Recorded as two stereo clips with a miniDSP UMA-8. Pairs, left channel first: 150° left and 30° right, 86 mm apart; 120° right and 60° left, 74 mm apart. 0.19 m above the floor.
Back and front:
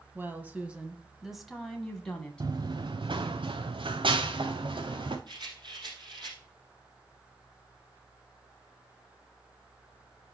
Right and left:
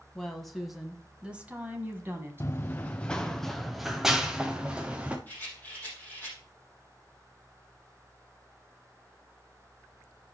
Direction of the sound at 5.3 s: 55° right.